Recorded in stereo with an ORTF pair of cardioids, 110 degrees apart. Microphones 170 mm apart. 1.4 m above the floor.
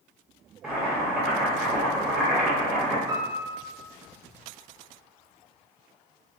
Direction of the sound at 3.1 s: 20° right.